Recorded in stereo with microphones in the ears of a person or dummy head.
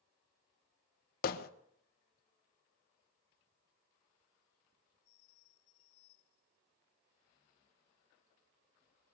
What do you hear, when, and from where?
1.2 s hammering: 55° left (ahead or behind), 1.4 m